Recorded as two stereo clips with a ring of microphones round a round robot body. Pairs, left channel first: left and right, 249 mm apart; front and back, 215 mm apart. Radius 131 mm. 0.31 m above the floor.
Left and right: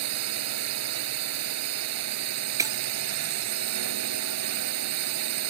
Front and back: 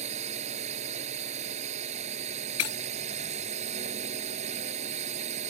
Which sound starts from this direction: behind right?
A drone, at 0.0 s.